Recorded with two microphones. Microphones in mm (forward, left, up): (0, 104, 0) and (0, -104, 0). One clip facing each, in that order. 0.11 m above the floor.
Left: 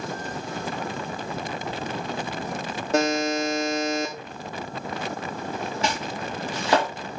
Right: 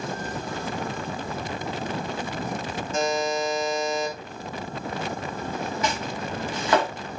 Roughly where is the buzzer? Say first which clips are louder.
Left 3 dB; left.